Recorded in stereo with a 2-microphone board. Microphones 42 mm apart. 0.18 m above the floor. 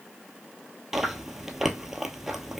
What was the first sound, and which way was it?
Chewing, 10° right (ahead or behind).